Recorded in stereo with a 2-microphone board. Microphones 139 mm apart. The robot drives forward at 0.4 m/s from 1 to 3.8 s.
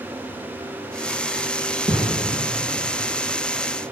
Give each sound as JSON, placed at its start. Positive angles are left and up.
{"t": 1.9, "sound": "a thud", "side_deg": -60, "distance_m": 1.6}